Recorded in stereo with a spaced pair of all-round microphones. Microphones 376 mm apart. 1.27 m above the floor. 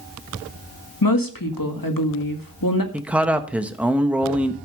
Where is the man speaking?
5° right (ahead or behind), 1.3 m.